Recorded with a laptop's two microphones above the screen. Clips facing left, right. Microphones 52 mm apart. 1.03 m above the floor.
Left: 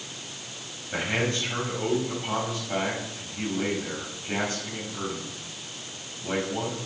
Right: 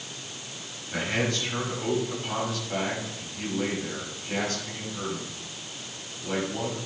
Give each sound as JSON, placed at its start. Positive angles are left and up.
{"t": 0.9, "sound": "a man speaking", "side_deg": 15, "distance_m": 6.0}